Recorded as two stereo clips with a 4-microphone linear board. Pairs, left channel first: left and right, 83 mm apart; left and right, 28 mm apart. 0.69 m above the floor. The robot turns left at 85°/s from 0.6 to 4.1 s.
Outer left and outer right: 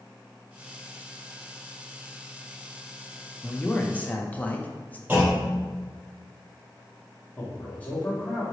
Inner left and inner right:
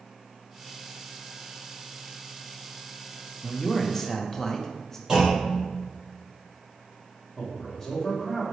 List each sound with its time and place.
3.4 s a man speaking: 10° left (ahead or behind), 0.5 m; by 5.0 s 20° left (ahead or behind), 0.5 m
5.1 s a clunk: 20° right (ahead or behind), 1.9 m
7.4 s a man speaking: 20° left (ahead or behind), 1.3 m